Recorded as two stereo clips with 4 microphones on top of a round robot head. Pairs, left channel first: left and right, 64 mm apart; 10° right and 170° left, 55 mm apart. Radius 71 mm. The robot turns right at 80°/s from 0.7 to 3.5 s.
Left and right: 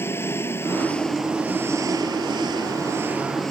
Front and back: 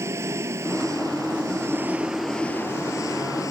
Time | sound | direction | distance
0.0 | an engine running | 140° left | ?